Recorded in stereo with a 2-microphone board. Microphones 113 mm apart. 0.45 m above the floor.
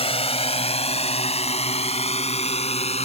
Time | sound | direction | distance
0.0 | a drone | 60° left (ahead or behind) | ?